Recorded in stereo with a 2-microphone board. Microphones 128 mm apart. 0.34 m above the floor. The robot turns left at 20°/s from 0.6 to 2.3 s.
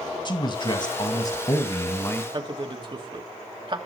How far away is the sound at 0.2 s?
About 1.7 m.